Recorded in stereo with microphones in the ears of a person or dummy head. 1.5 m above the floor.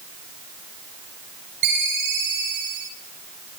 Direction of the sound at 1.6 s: 70° right (ahead or behind).